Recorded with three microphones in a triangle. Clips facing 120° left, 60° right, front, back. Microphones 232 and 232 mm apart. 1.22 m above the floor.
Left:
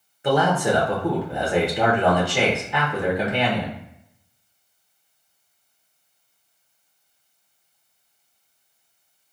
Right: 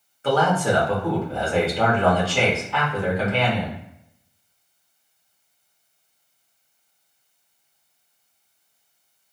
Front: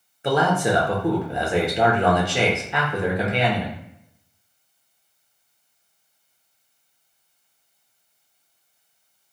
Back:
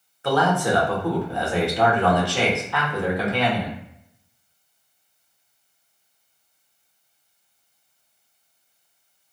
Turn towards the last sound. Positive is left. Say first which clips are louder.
# even, front 1 dB
turn(degrees=55)